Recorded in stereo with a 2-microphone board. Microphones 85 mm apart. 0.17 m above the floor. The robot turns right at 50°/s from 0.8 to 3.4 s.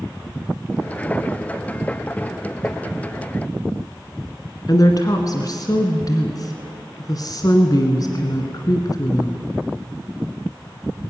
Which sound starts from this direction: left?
A woman speaking, at 4.7 s.